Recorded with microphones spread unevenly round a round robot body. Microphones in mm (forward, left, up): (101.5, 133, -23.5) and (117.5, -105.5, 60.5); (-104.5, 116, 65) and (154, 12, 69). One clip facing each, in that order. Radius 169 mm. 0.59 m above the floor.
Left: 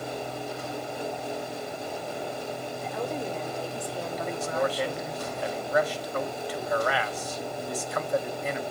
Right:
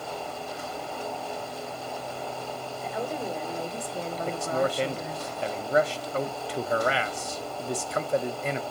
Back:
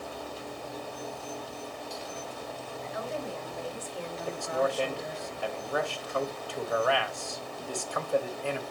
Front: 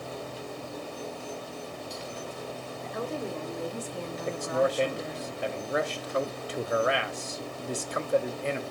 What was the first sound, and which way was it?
A woman speaking, 10° left.